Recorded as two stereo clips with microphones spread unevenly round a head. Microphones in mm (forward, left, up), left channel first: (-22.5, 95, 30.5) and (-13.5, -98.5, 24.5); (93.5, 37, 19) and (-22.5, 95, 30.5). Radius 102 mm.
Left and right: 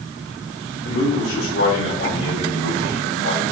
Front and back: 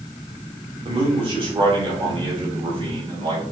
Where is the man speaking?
110° left, 3 m.